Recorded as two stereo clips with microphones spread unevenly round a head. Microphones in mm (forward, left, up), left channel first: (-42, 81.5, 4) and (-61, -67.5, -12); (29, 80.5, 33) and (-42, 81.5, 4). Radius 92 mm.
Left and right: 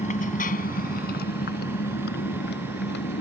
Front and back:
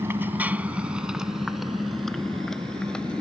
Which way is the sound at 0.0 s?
120° left.